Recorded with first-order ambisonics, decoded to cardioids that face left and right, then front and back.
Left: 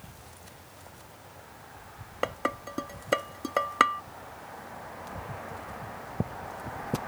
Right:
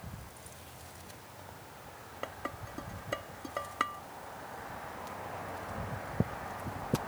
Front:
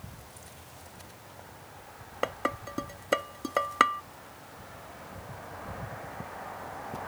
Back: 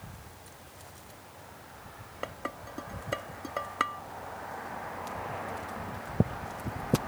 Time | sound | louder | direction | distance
2.2 | dishes clattering | left 10 dB, front 7 dB | 55° left | ?